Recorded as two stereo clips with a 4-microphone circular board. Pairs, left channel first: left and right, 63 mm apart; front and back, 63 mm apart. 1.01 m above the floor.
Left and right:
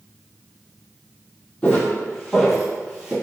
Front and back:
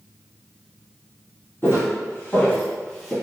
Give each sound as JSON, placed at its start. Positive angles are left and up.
{"t": 1.6, "sound": "footsteps", "azimuth_deg": 30, "distance_m": 1.3}